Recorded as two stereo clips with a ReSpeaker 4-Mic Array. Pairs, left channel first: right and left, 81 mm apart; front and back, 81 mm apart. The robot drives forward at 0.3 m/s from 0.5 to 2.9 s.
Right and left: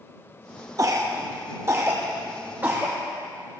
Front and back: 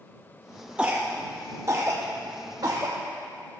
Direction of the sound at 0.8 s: 110° left.